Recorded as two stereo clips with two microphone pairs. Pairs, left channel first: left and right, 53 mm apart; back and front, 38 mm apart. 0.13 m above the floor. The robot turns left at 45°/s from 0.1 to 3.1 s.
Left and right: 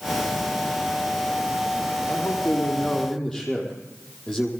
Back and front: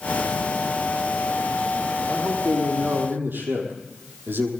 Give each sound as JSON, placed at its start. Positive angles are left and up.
{"t": 2.1, "sound": "a man speaking", "azimuth_deg": 60, "distance_m": 5.0}